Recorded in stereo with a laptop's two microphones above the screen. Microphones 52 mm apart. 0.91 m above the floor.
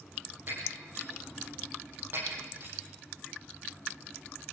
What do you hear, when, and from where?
0.5 s breaking glass: 45° right (ahead or behind), 9.5 m